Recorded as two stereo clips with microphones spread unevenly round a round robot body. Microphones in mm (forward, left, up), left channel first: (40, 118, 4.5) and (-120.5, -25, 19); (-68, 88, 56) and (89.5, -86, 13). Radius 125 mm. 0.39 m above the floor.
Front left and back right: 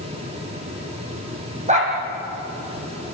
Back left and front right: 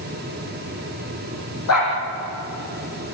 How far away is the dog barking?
About 5.5 m.